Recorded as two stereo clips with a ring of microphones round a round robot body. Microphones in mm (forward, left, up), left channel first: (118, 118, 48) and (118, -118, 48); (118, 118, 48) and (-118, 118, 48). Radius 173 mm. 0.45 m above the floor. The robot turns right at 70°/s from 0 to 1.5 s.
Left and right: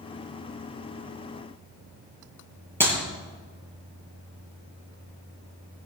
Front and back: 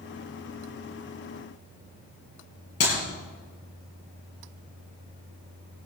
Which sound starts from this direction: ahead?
A clap, at 2.8 s.